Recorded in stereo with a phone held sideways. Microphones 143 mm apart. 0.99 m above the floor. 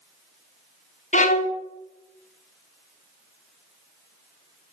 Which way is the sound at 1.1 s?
60° left (ahead or behind).